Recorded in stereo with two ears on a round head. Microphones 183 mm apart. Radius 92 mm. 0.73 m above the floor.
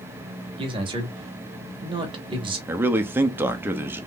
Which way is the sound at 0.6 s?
25° right (ahead or behind).